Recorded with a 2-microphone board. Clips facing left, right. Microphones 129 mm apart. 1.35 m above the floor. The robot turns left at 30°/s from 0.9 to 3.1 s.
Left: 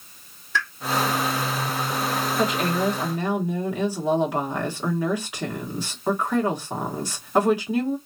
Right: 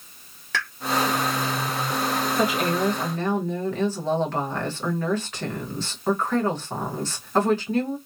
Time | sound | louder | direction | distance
0.5 | a pop | left 2 dB | 80° right | 1.4 m
2.4 | a woman speaking | even | 10° right (ahead or behind) | 1.4 m